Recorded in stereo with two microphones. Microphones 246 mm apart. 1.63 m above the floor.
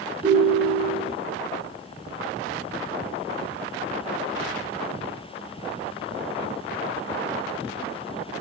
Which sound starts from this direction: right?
A ringtone, at 0.2 s.